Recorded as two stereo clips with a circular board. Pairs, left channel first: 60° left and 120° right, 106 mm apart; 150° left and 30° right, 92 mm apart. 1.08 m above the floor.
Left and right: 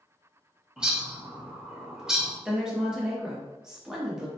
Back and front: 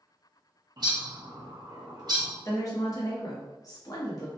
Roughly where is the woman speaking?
Behind.